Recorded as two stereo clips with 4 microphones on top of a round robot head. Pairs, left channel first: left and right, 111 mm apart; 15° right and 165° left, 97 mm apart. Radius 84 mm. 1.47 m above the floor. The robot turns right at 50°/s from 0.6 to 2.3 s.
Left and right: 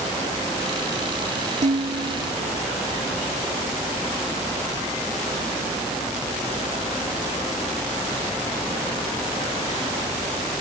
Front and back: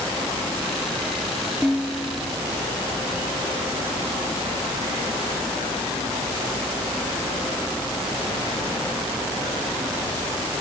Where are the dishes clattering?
105° right; by 2.3 s 70° right.